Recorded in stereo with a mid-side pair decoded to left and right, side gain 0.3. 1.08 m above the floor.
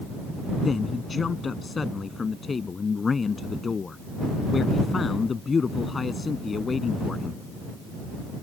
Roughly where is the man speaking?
Ahead left.